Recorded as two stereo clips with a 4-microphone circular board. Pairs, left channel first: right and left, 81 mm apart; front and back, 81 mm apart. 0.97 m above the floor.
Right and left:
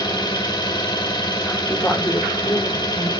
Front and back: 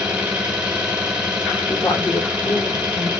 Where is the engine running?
105° right, 1.9 m.